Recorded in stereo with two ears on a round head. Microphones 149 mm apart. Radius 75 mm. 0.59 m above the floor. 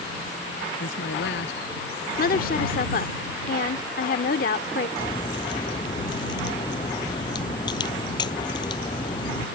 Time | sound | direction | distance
0.8 | a man speaking | 80° left | ?
2.2 | a woman speaking | 60° left (ahead or behind) | ?
5.0 | a crack | 30° left (ahead or behind) | ?